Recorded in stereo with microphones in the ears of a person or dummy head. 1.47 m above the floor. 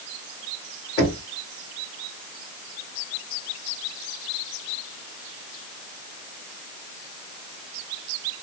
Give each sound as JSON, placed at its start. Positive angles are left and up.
{"t": 1.0, "sound": "knocking", "side_deg": 25, "distance_m": 1.5}